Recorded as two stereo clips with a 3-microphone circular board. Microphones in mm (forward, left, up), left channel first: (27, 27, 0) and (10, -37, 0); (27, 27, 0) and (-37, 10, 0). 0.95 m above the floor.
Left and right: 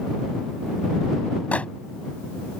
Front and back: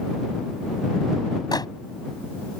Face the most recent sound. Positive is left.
turn(degrees=5)